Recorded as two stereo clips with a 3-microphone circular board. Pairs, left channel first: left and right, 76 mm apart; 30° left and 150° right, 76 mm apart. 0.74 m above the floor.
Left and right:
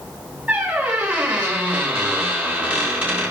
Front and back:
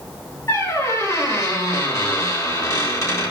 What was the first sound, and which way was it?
A squeak, 20° right.